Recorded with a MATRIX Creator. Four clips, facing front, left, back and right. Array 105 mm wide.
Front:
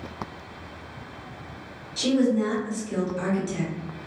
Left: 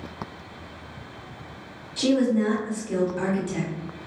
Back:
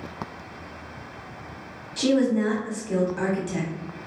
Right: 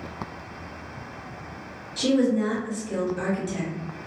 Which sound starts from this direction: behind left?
A woman speaking, at 2.0 s.